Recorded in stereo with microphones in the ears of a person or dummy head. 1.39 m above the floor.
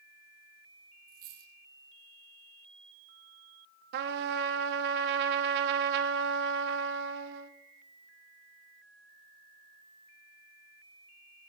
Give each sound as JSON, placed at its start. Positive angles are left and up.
{"t": 1.1, "sound": "a dropped coin", "side_deg": -60, "distance_m": 4.0}
{"t": 3.9, "sound": "a trumpet", "side_deg": -60, "distance_m": 1.1}